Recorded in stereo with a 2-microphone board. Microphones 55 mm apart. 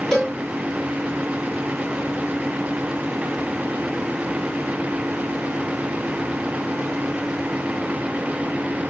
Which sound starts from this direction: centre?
A cowbell, at 0.1 s.